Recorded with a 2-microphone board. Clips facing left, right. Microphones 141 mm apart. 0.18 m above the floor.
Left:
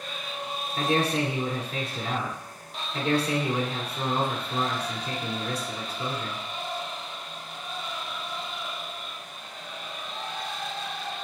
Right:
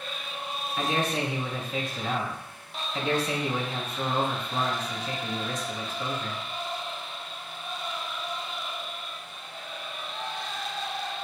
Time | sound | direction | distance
0.8 | a man speaking | 35° left (ahead or behind) | 1.6 m